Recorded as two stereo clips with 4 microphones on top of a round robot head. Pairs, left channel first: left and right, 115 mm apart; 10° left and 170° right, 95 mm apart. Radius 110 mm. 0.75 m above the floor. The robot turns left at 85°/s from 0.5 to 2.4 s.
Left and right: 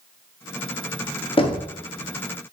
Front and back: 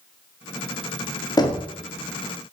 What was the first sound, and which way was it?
Knocking, 55° left.